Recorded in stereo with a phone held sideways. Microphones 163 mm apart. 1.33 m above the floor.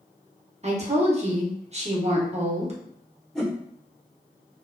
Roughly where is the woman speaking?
Right.